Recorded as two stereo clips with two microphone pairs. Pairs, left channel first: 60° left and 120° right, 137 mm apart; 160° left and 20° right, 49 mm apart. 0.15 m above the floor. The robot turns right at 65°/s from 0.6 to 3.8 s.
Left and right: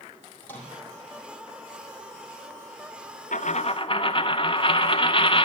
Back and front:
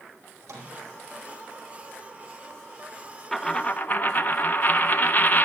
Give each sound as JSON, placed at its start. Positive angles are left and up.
{"t": 0.4, "sound": "a microwave", "azimuth_deg": -20, "distance_m": 4.5}
{"t": 3.3, "sound": "a dropped coin", "azimuth_deg": 80, "distance_m": 0.7}